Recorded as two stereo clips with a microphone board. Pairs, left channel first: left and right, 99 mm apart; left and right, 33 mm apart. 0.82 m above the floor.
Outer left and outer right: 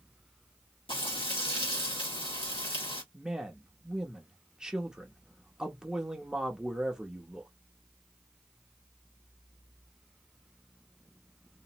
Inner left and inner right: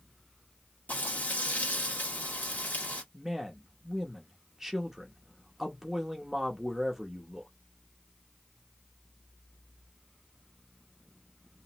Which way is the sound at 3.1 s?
10° right (ahead or behind).